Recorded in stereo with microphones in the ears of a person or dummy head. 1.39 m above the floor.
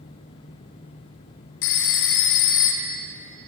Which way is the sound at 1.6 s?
65° left (ahead or behind).